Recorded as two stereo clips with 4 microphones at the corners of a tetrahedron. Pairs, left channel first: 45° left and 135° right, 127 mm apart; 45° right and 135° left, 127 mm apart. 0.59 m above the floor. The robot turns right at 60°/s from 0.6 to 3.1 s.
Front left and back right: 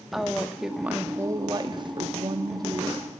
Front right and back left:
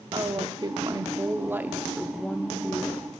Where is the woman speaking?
135° left, 0.7 m; by 3.1 s 75° right, 0.7 m.